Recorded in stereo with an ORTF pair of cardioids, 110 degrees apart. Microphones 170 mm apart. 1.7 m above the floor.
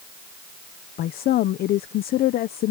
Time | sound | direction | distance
1.0 | a woman speaking | 65° left | ?